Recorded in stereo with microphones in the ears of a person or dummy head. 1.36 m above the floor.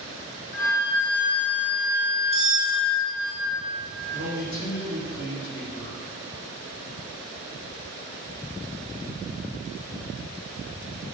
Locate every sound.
0.5 s a flute: 45° left (ahead or behind), 2 m
2.3 s cutlery clinking: 35° left (ahead or behind), 2.5 m
4.1 s a man speaking: 80° left, 2.5 m